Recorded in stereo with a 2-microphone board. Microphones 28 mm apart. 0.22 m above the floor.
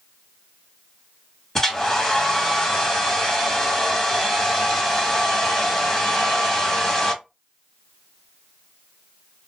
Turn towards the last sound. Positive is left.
turn(degrees=15)  # may be behind; listen again after turning